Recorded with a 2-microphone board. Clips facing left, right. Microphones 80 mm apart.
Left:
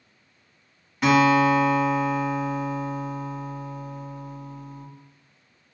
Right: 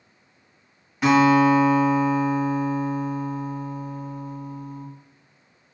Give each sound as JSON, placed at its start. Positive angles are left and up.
{"t": 1.0, "sound": "a guitar", "side_deg": -5, "distance_m": 1.8}